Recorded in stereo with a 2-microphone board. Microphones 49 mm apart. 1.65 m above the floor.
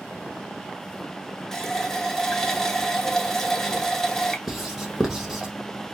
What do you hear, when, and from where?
1.5 s a running tap: 10° left (ahead or behind), 0.7 m
4.5 s writing: 5° right (ahead or behind), 1.0 m